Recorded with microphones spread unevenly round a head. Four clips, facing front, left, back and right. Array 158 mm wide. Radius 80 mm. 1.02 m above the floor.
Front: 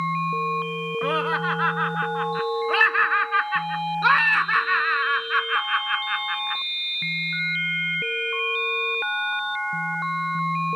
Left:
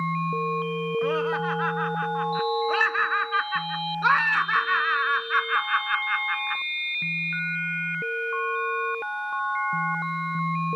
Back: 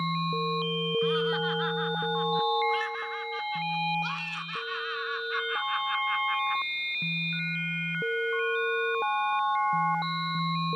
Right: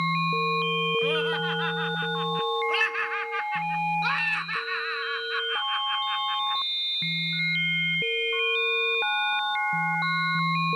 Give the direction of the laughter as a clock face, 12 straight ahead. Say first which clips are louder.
Left 2 dB, front 5 dB; 12 o'clock.